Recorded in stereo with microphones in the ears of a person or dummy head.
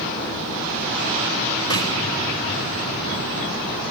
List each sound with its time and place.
1.7 s a snare drum: 25° left (ahead or behind), 7 m